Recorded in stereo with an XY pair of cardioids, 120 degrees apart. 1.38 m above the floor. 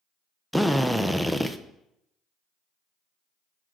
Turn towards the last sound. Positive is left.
turn(degrees=0)